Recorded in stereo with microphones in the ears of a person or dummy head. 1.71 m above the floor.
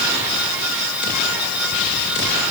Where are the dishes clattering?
I don't hear dishes clattering.